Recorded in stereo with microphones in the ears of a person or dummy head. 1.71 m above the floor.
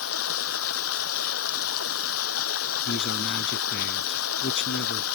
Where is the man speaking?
60° left (ahead or behind).